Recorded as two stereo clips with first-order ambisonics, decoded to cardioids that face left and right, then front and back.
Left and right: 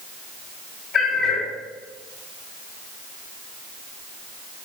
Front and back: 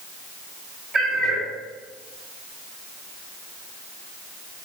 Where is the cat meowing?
135° left, 1.3 m.